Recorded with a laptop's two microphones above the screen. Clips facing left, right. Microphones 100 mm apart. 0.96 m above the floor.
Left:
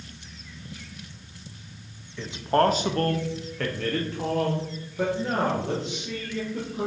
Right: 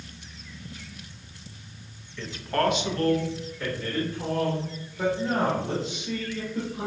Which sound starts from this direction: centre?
A man speaking, at 2.2 s.